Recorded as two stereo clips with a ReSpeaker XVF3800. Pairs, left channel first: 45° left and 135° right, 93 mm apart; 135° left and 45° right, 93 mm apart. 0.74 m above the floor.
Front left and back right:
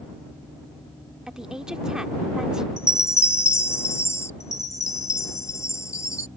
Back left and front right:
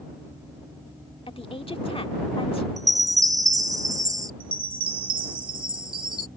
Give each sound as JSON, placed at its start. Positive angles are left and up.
{"t": 1.3, "sound": "a woman speaking", "azimuth_deg": 140}
{"t": 2.8, "sound": "a chime", "azimuth_deg": -5}
{"t": 4.4, "sound": "a chime", "azimuth_deg": -15}